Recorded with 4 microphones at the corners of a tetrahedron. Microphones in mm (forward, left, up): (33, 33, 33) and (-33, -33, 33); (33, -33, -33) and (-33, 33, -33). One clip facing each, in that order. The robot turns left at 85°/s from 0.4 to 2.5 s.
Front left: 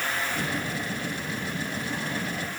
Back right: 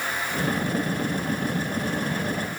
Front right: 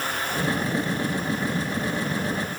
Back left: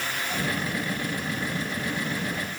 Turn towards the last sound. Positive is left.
No sound to turn to.